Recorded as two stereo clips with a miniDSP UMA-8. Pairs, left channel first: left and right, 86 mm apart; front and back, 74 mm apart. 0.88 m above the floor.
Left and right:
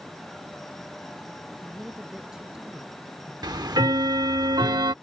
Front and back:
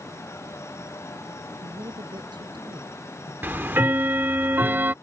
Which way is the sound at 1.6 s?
175° right.